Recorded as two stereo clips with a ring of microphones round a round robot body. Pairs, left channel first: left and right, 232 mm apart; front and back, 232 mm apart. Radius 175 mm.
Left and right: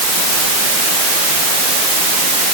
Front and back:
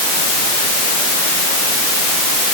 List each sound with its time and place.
Only background noise.